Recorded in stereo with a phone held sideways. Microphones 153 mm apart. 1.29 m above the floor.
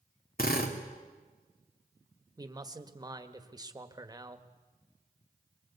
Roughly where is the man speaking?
Right.